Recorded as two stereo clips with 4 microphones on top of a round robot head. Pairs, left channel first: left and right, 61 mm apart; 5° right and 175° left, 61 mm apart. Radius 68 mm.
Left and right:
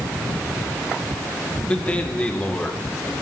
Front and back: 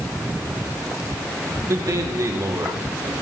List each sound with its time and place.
1.7 s a man speaking: 155° left, 2.0 m